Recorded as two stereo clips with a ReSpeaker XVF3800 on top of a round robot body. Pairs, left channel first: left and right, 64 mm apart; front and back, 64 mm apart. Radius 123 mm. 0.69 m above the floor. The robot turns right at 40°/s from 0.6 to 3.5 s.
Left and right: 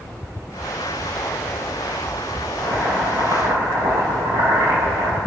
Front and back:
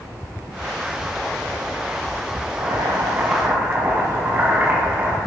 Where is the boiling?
155° right, 6.5 m; by 5.2 s 115° right, 6.5 m.